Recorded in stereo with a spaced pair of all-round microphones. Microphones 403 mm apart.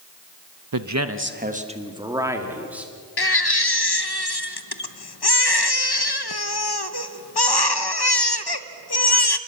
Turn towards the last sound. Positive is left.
turn(degrees=70)  # may be behind; listen again after turning